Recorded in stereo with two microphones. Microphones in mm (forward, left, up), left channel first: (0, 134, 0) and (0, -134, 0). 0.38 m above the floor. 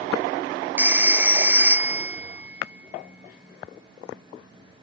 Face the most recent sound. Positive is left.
turn(degrees=-5)  # may be behind; listen again after turning